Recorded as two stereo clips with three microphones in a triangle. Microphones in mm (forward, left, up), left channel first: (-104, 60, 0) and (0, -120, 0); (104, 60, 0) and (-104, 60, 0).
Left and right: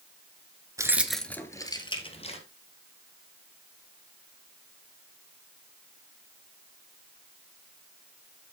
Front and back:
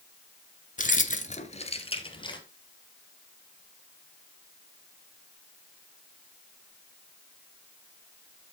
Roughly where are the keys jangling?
Ahead.